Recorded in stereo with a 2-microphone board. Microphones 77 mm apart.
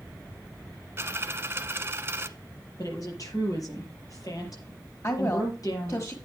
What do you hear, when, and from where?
1.0 s a dropped coin: 35° right (ahead or behind), 0.8 m
2.8 s a woman speaking: 50° left (ahead or behind), 5.5 m
5.0 s a woman speaking: 45° left (ahead or behind), 1.6 m